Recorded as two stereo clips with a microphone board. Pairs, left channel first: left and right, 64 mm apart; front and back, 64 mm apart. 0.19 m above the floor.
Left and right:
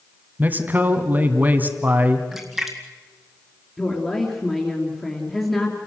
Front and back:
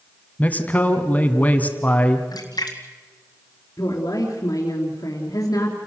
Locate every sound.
0.4 s a man speaking: 50° right, 1.9 m
2.3 s a splash: straight ahead, 1.9 m
3.8 s a woman speaking: 15° left, 3 m